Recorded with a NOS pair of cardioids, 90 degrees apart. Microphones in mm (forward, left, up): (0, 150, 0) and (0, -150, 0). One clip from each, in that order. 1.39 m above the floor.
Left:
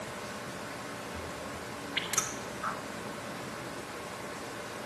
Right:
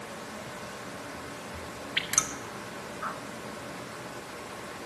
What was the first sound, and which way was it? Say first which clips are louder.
Dripping: right 4 dB; 30° right.